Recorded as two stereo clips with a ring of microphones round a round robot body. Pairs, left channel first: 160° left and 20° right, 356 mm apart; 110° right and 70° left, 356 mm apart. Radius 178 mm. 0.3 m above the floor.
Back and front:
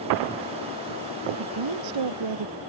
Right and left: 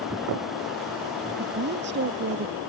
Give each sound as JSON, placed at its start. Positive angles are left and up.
{"t": 1.4, "sound": "a woman speaking", "azimuth_deg": 5}